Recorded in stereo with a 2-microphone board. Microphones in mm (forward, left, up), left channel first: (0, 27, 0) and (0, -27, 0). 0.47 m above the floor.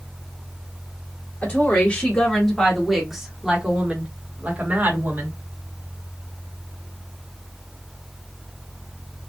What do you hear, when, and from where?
1.4 s a woman speaking: 25° left (ahead or behind), 1.6 m; by 5.3 s 40° right (ahead or behind), 2.0 m